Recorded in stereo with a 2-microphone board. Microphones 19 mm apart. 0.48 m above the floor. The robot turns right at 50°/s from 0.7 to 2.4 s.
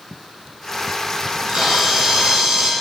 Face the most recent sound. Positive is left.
turn(degrees=-65)